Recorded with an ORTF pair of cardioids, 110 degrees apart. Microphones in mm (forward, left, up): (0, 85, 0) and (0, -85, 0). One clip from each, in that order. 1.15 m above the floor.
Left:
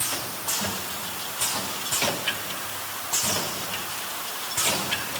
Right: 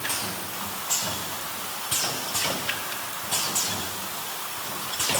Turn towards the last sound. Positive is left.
No sound to turn to.